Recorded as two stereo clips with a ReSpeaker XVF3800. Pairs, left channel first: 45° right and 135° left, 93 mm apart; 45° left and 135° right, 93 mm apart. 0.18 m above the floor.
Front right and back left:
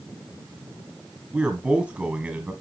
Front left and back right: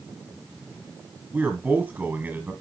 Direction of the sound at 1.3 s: 165° right.